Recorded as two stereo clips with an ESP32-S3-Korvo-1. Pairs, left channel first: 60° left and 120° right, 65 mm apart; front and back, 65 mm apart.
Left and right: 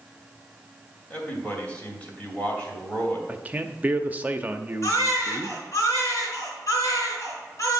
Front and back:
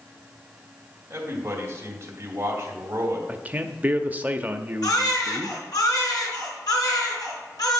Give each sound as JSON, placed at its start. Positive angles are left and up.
{"t": 1.1, "sound": "a man speaking", "azimuth_deg": 130, "distance_m": 2.5}
{"t": 3.3, "sound": "a man speaking", "azimuth_deg": -150, "distance_m": 0.6}
{"t": 4.8, "sound": "a baby crying", "azimuth_deg": 20, "distance_m": 3.0}